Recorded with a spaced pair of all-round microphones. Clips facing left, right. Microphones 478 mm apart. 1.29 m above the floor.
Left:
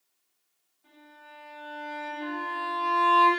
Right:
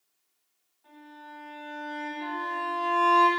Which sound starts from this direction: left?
A violin, at 0.8 s.